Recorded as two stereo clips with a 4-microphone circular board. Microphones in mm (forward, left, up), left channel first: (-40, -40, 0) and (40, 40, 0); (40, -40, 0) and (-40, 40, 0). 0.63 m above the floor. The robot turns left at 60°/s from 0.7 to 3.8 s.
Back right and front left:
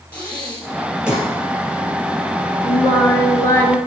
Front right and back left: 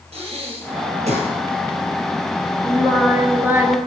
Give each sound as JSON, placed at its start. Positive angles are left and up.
{"t": 0.1, "sound": "breathing", "azimuth_deg": 150, "distance_m": 2.5}
{"t": 2.6, "sound": "singing", "azimuth_deg": -120, "distance_m": 1.1}